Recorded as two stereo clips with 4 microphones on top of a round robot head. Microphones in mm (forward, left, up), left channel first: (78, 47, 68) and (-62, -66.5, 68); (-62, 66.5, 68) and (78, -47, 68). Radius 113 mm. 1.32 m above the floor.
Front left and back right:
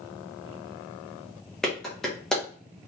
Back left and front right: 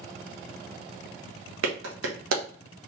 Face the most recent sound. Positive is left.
turn(degrees=-50)